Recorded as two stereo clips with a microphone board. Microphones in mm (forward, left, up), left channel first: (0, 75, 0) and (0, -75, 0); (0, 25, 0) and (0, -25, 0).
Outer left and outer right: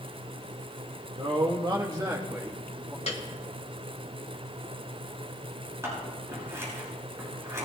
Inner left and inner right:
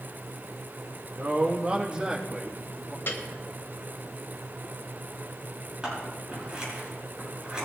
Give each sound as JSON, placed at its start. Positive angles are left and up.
{"t": 1.1, "sound": "a man speaking", "side_deg": -45, "distance_m": 0.9}
{"t": 3.1, "sound": "a piano", "side_deg": 50, "distance_m": 1.8}
{"t": 5.8, "sound": "scissors", "side_deg": -20, "distance_m": 7.5}